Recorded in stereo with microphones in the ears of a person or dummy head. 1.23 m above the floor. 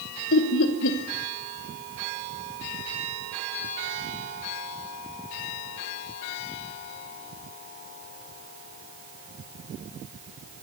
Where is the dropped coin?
I don't hear a dropped coin.